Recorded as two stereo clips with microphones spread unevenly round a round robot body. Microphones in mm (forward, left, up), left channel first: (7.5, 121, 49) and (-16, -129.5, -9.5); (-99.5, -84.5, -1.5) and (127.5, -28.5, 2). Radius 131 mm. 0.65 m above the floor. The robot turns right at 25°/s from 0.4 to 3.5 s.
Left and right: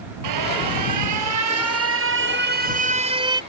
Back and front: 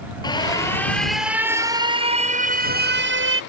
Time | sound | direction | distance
0.2 | an alarm | 95° right | ?